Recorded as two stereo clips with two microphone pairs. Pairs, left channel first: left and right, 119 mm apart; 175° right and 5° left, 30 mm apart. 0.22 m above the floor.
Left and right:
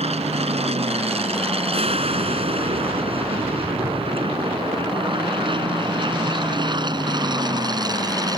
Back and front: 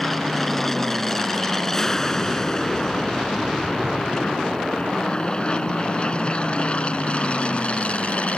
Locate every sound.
0.0 s an aircraft: 90° right; by 8.4 s 135° right